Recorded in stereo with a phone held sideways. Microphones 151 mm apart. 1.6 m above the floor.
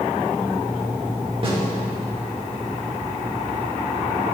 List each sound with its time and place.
1.4 s a snare drum: 40° right (ahead or behind), 2.5 m